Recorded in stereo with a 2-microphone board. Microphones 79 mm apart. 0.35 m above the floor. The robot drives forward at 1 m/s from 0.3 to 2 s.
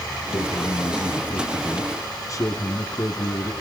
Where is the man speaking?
65° left (ahead or behind), 2.5 m; by 3.5 s 45° left (ahead or behind), 3 m.